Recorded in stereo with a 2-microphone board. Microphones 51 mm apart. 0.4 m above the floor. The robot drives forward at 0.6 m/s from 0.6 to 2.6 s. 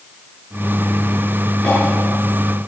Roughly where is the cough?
Centre.